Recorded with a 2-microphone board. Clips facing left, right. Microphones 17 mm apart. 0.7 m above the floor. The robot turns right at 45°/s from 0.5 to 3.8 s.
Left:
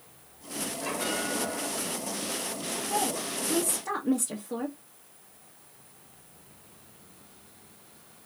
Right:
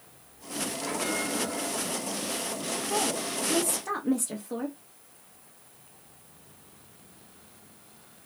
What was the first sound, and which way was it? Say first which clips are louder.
A bell: even; 100° left.